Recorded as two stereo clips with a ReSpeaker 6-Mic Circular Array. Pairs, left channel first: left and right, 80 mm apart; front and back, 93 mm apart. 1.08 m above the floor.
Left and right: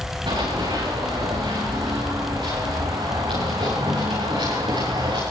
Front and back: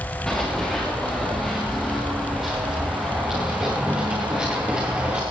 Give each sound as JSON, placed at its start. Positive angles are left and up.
{"t": 0.3, "sound": "running footsteps", "azimuth_deg": -85, "distance_m": 7.0}